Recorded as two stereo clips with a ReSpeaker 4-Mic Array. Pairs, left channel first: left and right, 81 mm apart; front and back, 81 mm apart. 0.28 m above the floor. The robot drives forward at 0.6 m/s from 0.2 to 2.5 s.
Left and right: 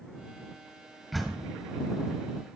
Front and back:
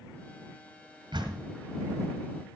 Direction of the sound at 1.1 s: Straight behind.